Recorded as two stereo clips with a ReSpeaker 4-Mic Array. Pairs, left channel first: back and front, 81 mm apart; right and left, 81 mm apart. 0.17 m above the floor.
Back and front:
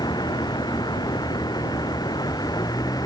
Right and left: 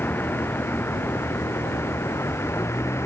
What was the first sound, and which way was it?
A vehicle, 155° right.